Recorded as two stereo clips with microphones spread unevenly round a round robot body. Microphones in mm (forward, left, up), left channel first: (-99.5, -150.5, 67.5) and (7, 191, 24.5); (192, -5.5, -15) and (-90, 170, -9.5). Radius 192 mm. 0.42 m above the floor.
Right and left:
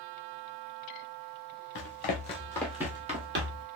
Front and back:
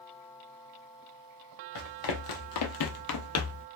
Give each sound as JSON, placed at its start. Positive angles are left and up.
{"t": 1.8, "sound": "running footsteps", "azimuth_deg": -50, "distance_m": 1.1}